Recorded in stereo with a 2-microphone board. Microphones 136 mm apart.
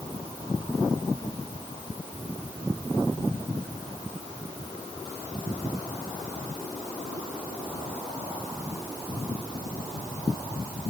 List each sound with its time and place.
Only background noise.